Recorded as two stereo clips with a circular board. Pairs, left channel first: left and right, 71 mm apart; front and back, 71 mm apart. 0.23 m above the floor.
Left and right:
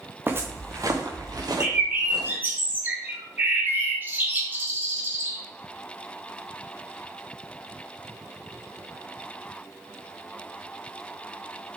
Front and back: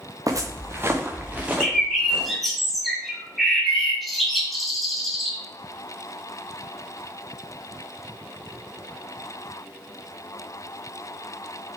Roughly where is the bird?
Right.